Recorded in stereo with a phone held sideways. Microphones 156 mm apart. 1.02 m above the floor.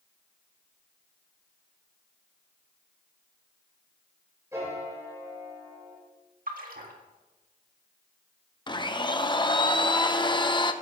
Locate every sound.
4.5 s a piano: 20° right (ahead or behind), 7 m
6.5 s a splash: 65° right (ahead or behind), 2.0 m
8.7 s a blender: 30° left (ahead or behind), 0.8 m